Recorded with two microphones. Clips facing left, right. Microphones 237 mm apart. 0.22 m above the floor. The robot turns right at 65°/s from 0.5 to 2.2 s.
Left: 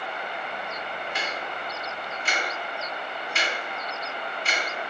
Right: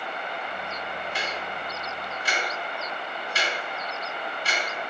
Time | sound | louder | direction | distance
1.1 | ticking | even | 35° right (ahead or behind) | 2.0 m